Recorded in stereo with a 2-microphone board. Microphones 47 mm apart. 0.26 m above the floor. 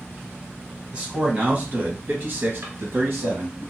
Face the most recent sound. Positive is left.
turn(degrees=-70)  # may be behind; listen again after turning